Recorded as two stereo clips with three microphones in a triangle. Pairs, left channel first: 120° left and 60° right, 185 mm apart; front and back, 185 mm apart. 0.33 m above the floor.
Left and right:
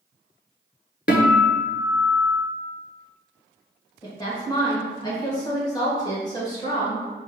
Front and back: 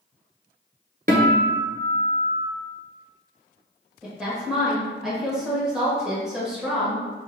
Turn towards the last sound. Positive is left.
turn(degrees=100)